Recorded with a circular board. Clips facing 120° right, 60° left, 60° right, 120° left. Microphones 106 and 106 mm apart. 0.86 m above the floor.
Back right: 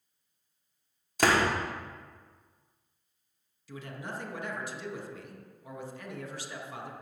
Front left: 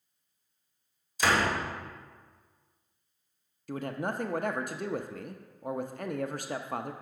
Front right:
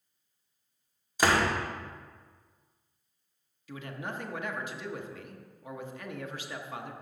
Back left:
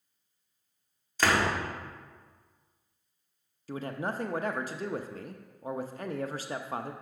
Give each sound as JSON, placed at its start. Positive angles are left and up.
{"t": 1.2, "sound": "a door slam", "azimuth_deg": -135, "distance_m": 1.9}
{"t": 3.7, "sound": "a man speaking", "azimuth_deg": 80, "distance_m": 0.6}